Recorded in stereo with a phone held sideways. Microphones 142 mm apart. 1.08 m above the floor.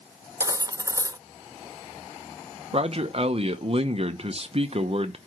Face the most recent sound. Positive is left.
turn(degrees=-45)  # may be behind; listen again after turning